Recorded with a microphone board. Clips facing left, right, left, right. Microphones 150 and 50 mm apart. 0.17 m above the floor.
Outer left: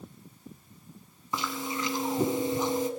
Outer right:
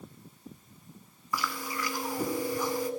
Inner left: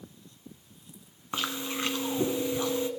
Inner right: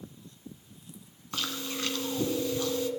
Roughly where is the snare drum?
No snare drum in this recording.